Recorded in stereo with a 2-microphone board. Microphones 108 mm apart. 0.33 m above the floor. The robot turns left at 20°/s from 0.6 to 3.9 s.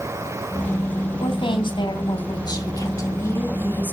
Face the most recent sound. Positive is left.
turn(degrees=20)